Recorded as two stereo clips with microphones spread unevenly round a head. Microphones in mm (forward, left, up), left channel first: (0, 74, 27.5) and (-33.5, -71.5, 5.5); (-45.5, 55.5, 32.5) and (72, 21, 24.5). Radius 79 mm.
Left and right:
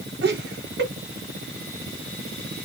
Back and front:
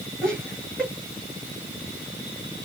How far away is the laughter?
About 2.5 m.